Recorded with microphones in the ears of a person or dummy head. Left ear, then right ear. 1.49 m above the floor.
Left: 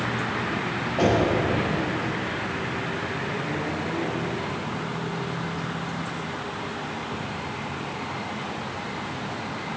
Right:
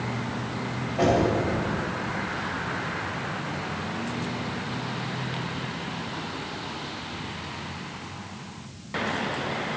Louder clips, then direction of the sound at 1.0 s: Even; 15° left (ahead or behind).